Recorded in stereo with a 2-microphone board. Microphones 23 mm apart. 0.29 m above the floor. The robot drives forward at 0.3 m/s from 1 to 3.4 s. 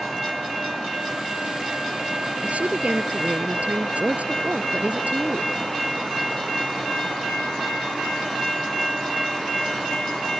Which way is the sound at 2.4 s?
80° right.